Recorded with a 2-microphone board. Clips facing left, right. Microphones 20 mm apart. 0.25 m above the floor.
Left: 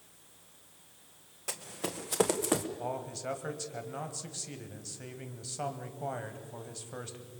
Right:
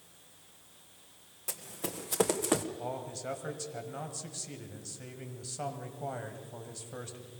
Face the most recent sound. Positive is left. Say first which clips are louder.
# left 1 dB
turn(degrees=10)  # may be behind; listen again after turning